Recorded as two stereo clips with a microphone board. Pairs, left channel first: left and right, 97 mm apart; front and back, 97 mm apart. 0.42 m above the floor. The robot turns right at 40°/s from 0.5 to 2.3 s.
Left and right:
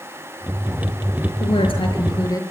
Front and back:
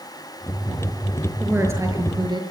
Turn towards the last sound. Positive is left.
turn(degrees=140)